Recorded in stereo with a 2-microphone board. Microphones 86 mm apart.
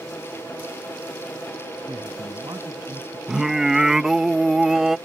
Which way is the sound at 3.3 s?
5° right (ahead or behind).